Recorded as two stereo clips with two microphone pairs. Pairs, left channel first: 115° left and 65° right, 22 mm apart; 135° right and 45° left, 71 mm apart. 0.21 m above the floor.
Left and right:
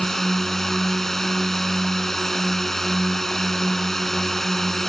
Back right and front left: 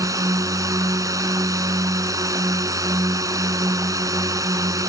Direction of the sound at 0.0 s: 45° left.